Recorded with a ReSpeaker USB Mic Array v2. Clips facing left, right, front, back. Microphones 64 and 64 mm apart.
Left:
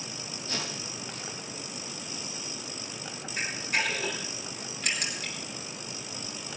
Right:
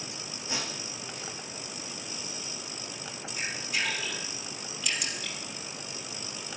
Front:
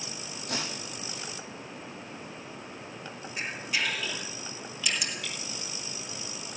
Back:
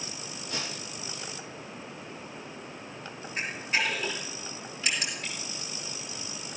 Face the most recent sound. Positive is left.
turn(degrees=125)